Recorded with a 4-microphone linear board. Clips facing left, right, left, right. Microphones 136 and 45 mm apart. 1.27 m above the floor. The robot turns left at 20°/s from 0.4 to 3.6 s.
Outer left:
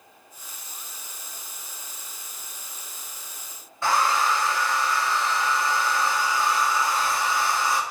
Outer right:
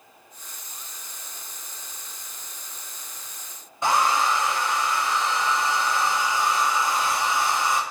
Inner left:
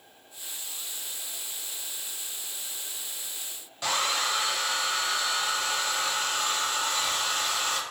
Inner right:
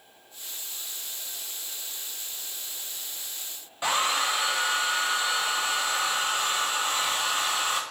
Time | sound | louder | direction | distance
3.8 | a hair dryer | outer right 1 dB, inner right 2 dB | 20° right (ahead or behind) | 0.5 m